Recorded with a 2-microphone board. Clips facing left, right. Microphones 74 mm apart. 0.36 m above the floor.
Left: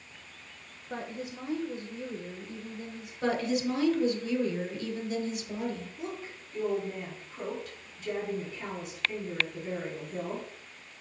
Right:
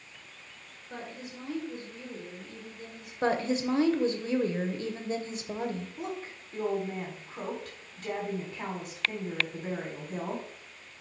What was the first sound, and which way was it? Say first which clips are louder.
A woman speaking: left 4 dB; 25° left (ahead or behind).